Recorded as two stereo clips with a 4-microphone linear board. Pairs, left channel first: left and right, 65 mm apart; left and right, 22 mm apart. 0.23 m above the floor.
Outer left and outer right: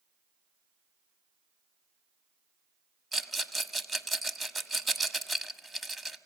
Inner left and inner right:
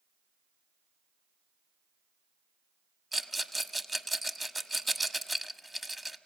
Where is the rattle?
Centre (ahead or behind), 1.3 m.